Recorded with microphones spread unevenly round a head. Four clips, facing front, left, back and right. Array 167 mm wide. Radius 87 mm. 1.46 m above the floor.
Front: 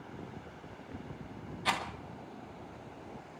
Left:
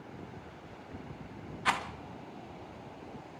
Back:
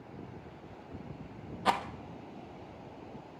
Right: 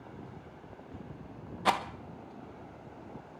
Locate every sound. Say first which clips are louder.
1.6 s a rattle: right 3 dB, back 4 dB; 130° right, 1.1 m